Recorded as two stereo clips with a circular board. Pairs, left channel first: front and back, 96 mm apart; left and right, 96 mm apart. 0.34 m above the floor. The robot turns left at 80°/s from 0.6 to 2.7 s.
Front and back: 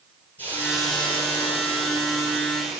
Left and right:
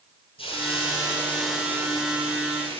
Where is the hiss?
70° left, 3 m; by 2.8 s 95° right, 3 m.